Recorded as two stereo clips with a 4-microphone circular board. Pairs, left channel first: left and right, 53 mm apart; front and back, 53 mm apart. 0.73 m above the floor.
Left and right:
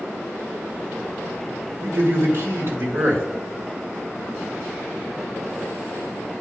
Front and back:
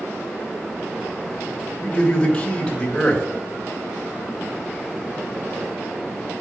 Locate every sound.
1.8 s a man speaking: 75° right, 1.7 m